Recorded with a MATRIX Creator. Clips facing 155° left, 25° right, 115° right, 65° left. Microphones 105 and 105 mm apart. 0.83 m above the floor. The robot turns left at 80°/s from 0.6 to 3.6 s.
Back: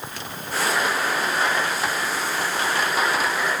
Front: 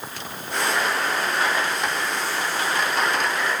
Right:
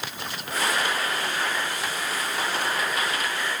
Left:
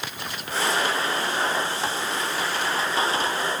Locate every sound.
Only background noise.